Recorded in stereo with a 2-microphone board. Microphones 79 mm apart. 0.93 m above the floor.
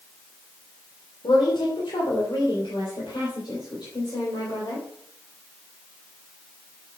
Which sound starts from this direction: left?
A woman speaking, at 1.2 s.